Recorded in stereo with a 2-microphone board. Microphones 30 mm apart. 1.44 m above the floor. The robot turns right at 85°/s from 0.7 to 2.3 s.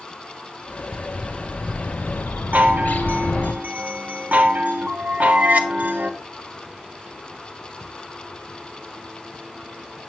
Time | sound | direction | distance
0.9 | a bird | 40° right | 0.6 m
2.5 | a chime | 60° right (ahead or behind) | 0.7 m